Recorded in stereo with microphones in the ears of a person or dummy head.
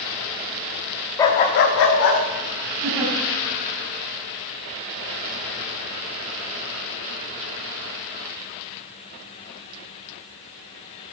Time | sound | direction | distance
1.2 | a dog barking | 15° left (ahead or behind) | 0.7 m
2.8 | a giggle | 15° right (ahead or behind) | 4.5 m